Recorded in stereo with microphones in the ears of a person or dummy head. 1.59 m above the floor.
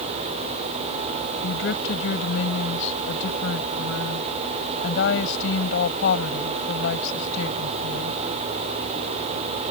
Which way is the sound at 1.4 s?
70° left (ahead or behind).